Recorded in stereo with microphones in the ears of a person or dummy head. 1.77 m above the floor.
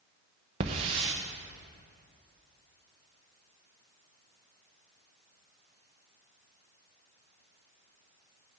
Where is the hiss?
25° right (ahead or behind), 0.8 m.